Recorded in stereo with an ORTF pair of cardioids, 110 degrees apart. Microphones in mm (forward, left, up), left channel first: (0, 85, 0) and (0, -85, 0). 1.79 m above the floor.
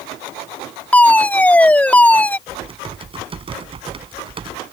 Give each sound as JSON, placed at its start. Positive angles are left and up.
{"t": 0.9, "sound": "a fire alarm", "azimuth_deg": 10}
{"t": 2.5, "sound": "typing on a keyboard", "azimuth_deg": -30}